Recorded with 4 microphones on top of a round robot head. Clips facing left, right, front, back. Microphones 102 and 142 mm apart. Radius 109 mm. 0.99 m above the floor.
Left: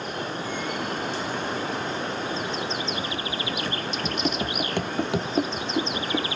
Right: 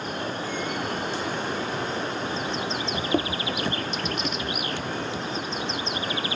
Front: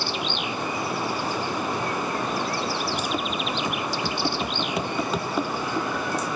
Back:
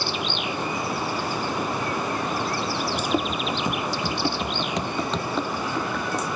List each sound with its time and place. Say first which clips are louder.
2.9 s running footsteps: right 4 dB, back 3 dB; 110° right; by 6.3 s 80° left